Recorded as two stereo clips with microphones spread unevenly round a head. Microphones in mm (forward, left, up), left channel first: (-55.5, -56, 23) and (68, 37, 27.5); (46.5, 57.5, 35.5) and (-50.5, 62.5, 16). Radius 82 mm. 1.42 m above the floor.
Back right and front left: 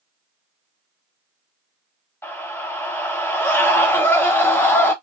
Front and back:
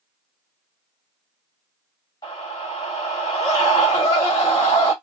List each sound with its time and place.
2.2 s a scream: 70° right, 1.9 m